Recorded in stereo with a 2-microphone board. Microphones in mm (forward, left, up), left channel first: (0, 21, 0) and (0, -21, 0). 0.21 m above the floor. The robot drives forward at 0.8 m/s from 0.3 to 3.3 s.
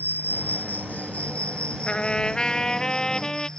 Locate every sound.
0.0 s an insect: 55° left (ahead or behind); by 3.6 s 20° left (ahead or behind)
1.9 s a trumpet: 25° left (ahead or behind); by 3.5 s 15° left (ahead or behind)